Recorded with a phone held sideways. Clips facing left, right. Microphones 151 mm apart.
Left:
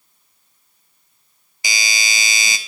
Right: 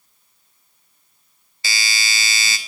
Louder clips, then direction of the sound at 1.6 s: Left 2 dB; 15° left (ahead or behind).